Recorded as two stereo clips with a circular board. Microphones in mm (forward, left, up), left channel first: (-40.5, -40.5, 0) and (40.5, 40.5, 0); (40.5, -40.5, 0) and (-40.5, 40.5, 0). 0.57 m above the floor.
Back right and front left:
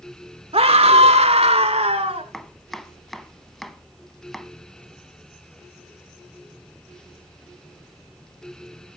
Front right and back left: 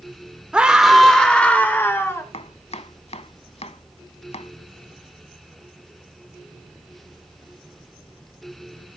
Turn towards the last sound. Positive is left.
turn(degrees=-50)